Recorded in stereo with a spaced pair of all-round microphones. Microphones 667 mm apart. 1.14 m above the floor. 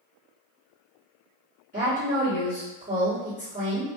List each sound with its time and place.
1.7 s a woman speaking: 10° right (ahead or behind), 1.2 m